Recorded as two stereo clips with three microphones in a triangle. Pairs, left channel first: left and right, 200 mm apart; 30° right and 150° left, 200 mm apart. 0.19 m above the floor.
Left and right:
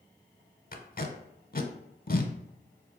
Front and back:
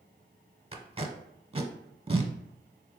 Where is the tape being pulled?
105° left, 0.6 m.